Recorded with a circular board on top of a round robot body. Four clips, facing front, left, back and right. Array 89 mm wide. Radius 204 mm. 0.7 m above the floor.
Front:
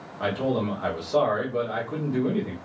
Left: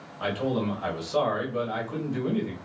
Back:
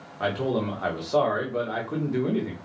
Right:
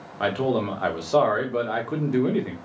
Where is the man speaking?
100° right, 2 m.